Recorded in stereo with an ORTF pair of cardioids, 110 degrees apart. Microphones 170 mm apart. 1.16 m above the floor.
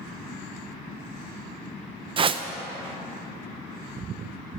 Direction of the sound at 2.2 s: 30° right.